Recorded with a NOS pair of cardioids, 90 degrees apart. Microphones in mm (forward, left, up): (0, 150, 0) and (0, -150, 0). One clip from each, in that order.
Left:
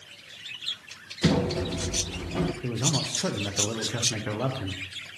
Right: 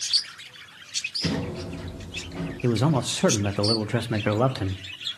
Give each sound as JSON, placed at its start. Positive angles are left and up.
{"t": 1.2, "sound": "a sliding door", "azimuth_deg": 35, "distance_m": 0.8}
{"t": 2.6, "sound": "a man speaking", "azimuth_deg": -35, "distance_m": 0.6}